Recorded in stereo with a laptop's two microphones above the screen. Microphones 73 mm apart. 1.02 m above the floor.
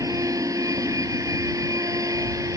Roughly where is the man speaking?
No man speaking in this recording.